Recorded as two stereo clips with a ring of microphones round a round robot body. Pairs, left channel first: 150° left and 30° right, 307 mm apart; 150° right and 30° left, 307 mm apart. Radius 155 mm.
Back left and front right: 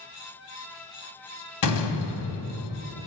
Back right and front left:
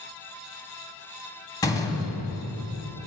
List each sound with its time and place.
1.6 s a door slam: 130° left, 1.4 m